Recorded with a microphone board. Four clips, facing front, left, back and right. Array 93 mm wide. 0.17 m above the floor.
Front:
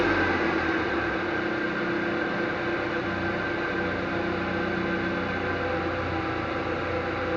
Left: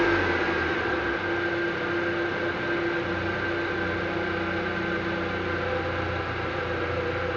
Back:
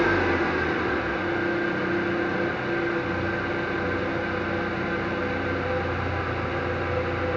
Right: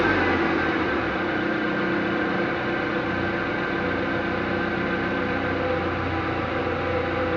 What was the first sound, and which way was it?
An engine running, 80° right.